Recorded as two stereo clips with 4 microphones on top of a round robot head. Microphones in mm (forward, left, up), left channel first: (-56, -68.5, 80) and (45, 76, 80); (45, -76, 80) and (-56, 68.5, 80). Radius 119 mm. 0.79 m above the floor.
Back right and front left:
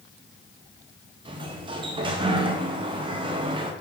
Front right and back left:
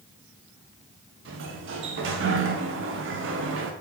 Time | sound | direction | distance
1.2 | a sliding door | 120° left | 0.8 m